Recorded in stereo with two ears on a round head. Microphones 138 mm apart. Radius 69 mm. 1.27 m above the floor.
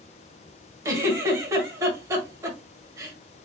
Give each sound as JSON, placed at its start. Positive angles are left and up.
{"t": 0.8, "sound": "a giggle", "side_deg": -20, "distance_m": 1.7}